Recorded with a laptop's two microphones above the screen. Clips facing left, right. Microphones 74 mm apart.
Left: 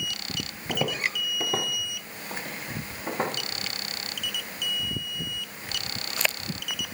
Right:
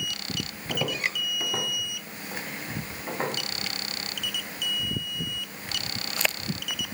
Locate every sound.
0.7 s footsteps: 20° left (ahead or behind), 1.3 m; by 3.4 s 60° left (ahead or behind), 4 m